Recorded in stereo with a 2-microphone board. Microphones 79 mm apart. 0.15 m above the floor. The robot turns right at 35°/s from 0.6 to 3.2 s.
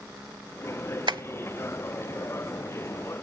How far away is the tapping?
About 0.5 m.